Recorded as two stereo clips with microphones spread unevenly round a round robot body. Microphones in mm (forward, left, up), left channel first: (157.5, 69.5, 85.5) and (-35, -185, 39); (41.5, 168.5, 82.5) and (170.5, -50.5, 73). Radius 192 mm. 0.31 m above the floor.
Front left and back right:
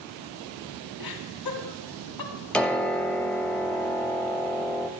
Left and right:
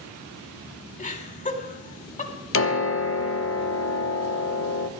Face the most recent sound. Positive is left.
turn(degrees=145)